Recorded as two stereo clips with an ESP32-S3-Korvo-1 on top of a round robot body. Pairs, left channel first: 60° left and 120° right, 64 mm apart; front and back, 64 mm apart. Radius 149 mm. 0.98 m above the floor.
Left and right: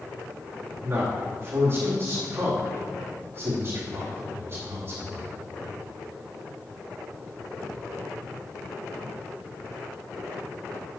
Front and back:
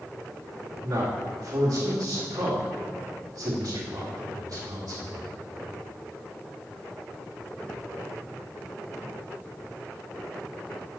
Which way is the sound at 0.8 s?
170° right.